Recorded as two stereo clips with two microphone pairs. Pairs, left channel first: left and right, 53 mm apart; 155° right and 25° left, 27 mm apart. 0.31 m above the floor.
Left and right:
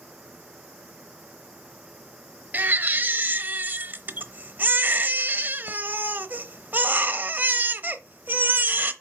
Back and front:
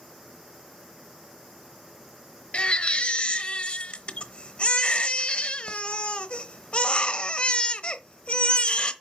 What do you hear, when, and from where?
2.5 s a baby crying: 130° right, 0.9 m